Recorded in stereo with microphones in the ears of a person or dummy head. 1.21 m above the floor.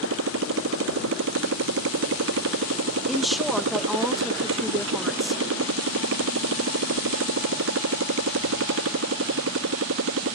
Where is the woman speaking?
Centre (ahead or behind).